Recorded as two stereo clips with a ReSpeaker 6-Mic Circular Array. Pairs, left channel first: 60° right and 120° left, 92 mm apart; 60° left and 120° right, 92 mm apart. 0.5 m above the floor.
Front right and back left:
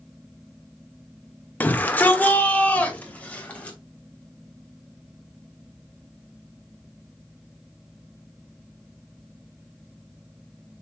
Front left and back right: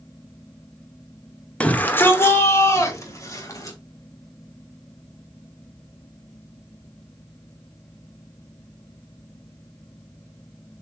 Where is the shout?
5° right, 1.3 m; by 3.8 s 15° left, 3.5 m.